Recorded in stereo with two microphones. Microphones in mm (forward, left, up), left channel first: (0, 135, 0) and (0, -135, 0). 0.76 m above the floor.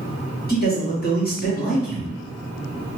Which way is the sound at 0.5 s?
35° left (ahead or behind).